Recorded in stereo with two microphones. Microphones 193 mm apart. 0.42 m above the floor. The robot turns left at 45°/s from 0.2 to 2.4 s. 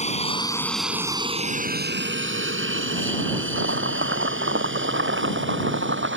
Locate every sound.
0.0 s an aircraft: 30° left (ahead or behind); by 6.2 s 70° right (ahead or behind)
3.5 s chopping: 80° right